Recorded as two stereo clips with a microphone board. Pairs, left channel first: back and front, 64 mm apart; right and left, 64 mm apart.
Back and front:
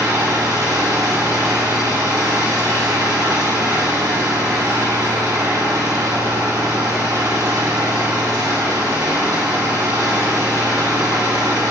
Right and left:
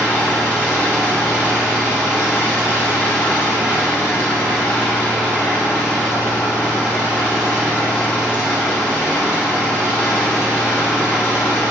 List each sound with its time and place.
0.0 s an engine running: 20° left, 3 m